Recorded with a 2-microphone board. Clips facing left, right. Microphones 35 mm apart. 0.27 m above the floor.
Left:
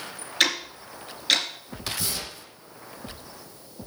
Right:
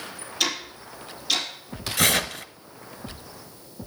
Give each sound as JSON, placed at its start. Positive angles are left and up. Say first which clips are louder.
{"t": 0.4, "sound": "ticking", "louder": "left 3 dB", "side_deg": 60, "distance_m": 2.5}
{"t": 2.0, "sound": "tearing paper", "louder": "right 11 dB", "side_deg": -65, "distance_m": 0.6}